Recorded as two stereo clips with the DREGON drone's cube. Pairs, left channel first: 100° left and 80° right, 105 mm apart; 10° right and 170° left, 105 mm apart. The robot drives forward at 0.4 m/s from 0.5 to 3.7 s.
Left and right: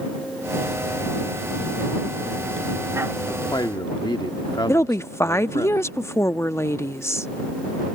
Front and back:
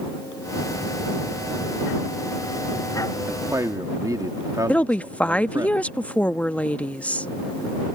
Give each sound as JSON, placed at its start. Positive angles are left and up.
{"t": 3.3, "sound": "a man speaking", "azimuth_deg": 115}
{"t": 4.7, "sound": "a woman speaking", "azimuth_deg": 60}